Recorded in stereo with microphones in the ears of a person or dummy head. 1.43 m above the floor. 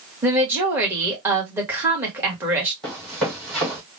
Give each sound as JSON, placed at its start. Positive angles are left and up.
{"t": 0.2, "sound": "a woman speaking", "side_deg": -10, "distance_m": 1.7}
{"t": 2.8, "sound": "running footsteps", "side_deg": 0, "distance_m": 2.0}